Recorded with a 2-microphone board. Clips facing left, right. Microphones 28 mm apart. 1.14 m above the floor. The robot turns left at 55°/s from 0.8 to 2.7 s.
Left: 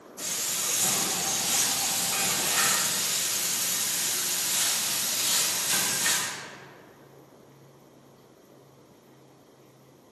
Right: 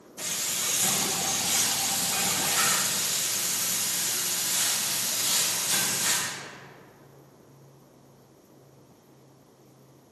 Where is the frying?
120° right, 0.8 m; by 6.3 s 135° left, 0.8 m.